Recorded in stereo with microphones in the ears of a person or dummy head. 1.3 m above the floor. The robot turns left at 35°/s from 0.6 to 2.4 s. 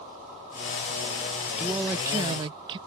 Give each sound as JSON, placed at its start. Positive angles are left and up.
{"t": 1.6, "sound": "a man speaking", "side_deg": 0}